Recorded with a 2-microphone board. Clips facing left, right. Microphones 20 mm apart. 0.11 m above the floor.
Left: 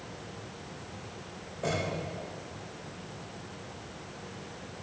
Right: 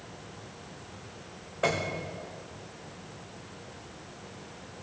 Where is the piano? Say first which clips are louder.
Right 3 dB; 55° right (ahead or behind), 3 m.